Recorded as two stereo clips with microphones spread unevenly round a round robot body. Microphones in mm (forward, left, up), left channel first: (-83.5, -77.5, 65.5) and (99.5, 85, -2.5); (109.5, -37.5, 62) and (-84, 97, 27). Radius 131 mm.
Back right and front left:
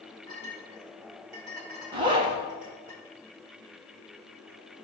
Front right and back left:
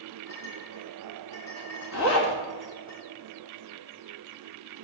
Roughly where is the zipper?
Ahead right.